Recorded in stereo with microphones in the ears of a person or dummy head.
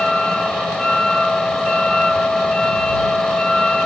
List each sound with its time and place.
0.0 s a vehicle: centre (ahead or behind)